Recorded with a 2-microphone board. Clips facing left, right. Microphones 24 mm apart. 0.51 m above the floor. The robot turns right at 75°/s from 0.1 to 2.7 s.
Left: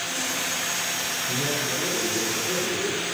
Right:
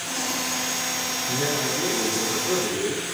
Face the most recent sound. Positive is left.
turn(degrees=-45)